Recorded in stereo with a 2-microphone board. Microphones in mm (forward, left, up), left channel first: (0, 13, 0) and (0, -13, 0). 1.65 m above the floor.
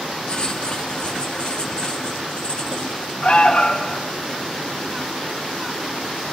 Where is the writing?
35° left (ahead or behind), 2 m.